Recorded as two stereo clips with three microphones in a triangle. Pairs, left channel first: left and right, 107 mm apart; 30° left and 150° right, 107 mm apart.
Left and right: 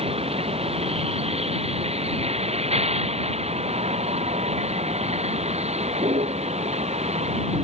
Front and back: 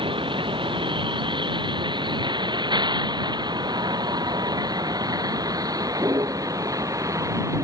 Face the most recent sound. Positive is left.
turn(degrees=-90)